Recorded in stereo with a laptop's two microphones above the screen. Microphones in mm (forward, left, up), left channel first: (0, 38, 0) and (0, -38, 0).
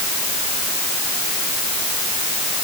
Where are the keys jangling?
I don't hear keys jangling.